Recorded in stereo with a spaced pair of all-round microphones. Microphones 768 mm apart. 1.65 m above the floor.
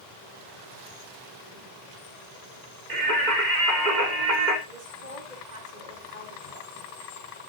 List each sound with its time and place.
2.9 s singing: 70° right (ahead or behind), 3.5 m
4.7 s a woman speaking: 65° right (ahead or behind), 5.5 m